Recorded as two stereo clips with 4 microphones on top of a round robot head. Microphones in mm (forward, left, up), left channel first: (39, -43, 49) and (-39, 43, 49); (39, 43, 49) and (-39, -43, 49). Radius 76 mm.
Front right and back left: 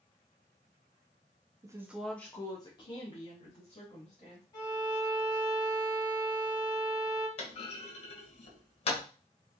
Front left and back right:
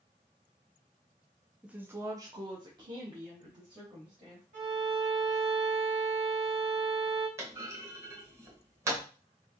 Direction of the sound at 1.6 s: 155° left.